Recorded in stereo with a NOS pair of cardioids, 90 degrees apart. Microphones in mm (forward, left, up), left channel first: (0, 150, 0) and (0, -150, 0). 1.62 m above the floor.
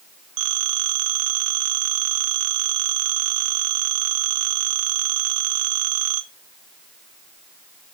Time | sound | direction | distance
0.4 | a phone ringing | 55° right | 1.9 m